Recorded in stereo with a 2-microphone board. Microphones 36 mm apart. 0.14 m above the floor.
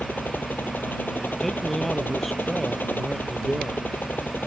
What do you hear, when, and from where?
0.0 s a helicopter: 70° left (ahead or behind); by 4.5 s 65° left (ahead or behind)
1.4 s a man speaking: 5° left (ahead or behind)